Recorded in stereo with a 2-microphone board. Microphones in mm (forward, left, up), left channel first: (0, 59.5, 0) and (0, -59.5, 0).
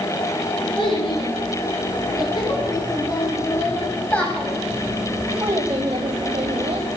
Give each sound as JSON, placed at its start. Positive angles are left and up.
{"t": 0.8, "sound": "a child speaking", "side_deg": 45, "distance_m": 2.5}